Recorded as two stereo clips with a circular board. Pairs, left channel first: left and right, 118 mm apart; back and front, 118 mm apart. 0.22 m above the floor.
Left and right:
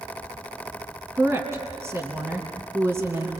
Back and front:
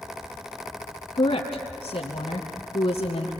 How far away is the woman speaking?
About 2 m.